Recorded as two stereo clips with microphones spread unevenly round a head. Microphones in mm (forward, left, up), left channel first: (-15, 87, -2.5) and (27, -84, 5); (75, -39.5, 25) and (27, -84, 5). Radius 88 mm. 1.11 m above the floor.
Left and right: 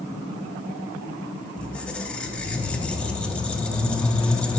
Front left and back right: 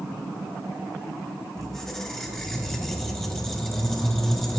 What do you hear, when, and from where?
1.6 s a squeak: 25° left, 0.6 m